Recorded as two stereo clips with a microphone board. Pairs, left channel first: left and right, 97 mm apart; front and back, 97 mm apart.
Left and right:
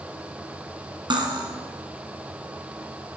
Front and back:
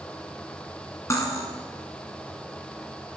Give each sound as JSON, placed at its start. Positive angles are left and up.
{"t": 1.1, "sound": "cutlery clinking", "azimuth_deg": -55, "distance_m": 2.0}